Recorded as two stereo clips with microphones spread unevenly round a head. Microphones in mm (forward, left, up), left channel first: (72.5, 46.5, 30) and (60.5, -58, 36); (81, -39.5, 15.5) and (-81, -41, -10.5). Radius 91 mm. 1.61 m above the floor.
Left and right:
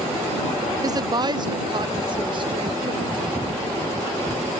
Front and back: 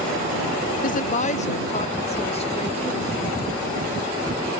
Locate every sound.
0.8 s a woman speaking: 40° right; by 3.5 s 55° right